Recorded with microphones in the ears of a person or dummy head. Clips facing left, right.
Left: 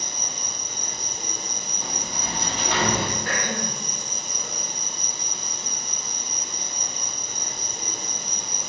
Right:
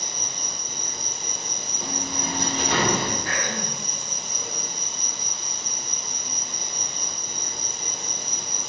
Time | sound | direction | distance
0.0 | an insect | 10° right (ahead or behind) | 1.1 m
1.8 | a sliding door | 50° right (ahead or behind) | 0.7 m
3.2 | throat clearing | 55° left (ahead or behind) | 0.8 m